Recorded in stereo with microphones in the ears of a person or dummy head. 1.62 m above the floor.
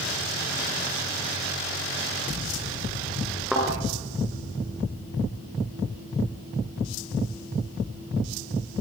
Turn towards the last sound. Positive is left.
turn(degrees=0)  # may be behind; listen again after turning